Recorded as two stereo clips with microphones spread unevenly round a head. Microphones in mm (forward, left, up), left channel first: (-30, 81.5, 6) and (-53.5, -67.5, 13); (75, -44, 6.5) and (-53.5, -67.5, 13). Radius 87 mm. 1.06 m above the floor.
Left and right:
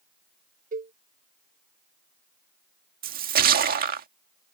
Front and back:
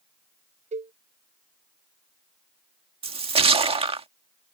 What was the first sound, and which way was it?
A cowbell, 135° right.